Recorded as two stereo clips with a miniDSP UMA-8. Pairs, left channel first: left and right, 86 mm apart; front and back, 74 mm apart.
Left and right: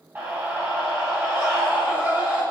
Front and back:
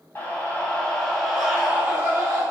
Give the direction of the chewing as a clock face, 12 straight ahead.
No chewing in this recording.